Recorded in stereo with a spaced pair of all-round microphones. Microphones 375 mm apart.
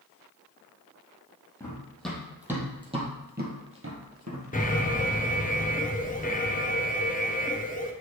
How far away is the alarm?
About 1.0 m.